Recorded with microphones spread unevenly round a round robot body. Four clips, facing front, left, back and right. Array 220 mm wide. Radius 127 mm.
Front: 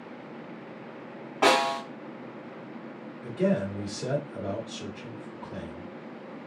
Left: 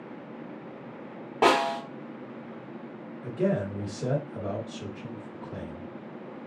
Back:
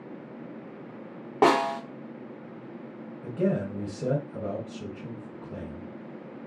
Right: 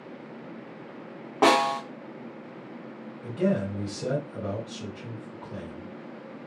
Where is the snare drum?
175° right, 0.8 m.